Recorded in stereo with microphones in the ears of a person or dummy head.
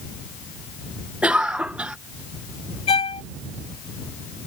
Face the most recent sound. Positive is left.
turn(degrees=25)  # may be behind; listen again after turning